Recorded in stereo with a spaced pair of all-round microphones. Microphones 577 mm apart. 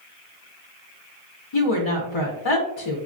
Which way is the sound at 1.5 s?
55° left (ahead or behind).